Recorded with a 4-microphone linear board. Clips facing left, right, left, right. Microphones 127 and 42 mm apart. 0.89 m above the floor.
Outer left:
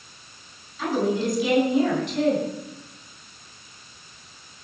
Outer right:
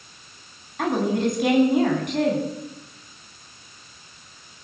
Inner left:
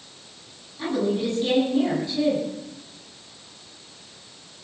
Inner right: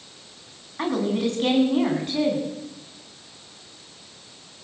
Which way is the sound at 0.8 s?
65° right (ahead or behind).